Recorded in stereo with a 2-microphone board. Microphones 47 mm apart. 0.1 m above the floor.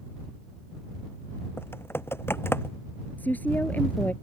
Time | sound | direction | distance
1.6 | typing on a keyboard | 60° left (ahead or behind) | ?
3.2 | a woman speaking | 40° left (ahead or behind) | ?